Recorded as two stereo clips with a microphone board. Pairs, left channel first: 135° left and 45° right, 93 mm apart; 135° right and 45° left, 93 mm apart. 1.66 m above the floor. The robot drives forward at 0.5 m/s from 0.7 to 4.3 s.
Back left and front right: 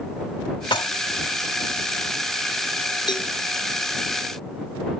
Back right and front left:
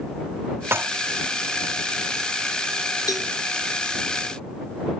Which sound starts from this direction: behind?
A cowbell, at 3.1 s.